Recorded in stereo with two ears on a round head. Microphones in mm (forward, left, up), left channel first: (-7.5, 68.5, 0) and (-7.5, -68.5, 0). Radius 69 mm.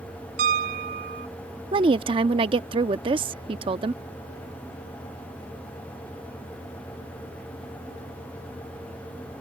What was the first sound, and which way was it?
A piano, 60° right (ahead or behind).